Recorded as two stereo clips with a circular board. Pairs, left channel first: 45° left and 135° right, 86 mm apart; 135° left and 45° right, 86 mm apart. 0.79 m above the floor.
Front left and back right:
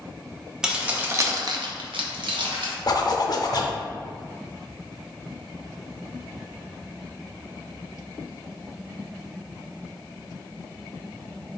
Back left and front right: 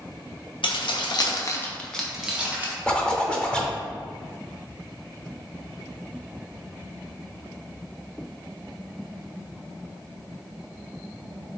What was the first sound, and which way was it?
Keys jangling, 145° left.